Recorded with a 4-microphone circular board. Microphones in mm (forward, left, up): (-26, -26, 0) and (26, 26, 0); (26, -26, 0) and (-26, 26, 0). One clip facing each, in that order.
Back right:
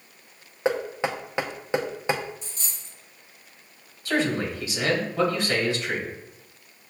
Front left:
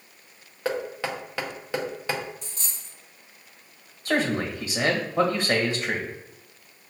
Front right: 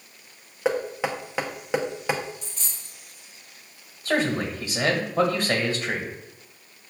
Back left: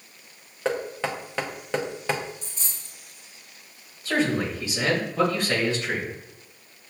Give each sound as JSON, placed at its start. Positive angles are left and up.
{"t": 0.7, "sound": "knocking", "azimuth_deg": -105, "distance_m": 0.6}
{"t": 2.4, "sound": "a dropped coin", "azimuth_deg": 50, "distance_m": 2.0}
{"t": 4.0, "sound": "a man speaking", "azimuth_deg": 5, "distance_m": 1.8}